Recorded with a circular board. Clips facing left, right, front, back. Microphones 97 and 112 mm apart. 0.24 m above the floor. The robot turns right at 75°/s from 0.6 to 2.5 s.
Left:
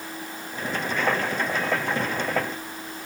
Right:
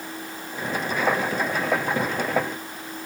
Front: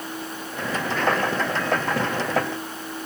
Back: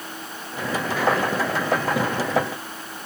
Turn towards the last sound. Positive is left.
No sound to turn to.